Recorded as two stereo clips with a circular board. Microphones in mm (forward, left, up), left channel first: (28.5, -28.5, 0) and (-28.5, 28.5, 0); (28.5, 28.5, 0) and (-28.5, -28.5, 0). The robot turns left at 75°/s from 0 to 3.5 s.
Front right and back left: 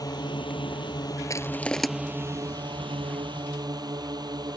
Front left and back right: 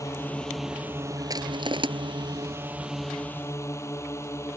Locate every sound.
0.0 s a drone: straight ahead; by 4.6 s 100° left
1.3 s crushing: 95° right; by 1.9 s 135° right